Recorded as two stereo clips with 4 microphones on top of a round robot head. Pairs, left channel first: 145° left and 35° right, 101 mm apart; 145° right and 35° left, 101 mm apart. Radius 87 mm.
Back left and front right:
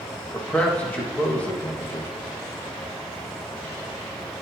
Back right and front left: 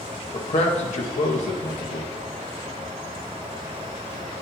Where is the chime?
I don't hear a chime.